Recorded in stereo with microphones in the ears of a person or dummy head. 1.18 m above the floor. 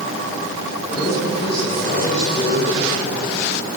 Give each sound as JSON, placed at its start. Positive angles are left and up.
{"t": 0.9, "sound": "a man speaking", "side_deg": 40, "distance_m": 10.0}